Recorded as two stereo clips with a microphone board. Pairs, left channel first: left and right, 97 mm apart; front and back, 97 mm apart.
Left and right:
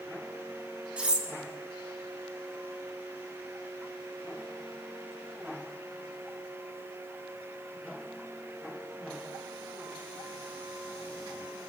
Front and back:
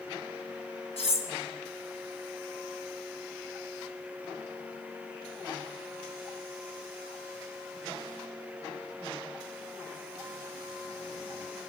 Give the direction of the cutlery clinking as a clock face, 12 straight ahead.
12 o'clock.